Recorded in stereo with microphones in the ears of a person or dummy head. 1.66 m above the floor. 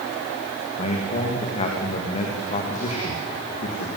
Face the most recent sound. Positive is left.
turn(degrees=35)  # may be behind; listen again after turning